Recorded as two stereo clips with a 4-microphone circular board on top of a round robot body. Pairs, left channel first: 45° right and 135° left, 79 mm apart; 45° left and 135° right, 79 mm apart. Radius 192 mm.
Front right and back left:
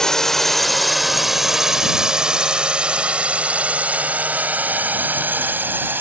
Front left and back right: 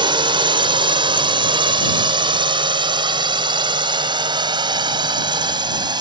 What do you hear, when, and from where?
0.0 s a drone: 130° right; by 6.0 s 160° right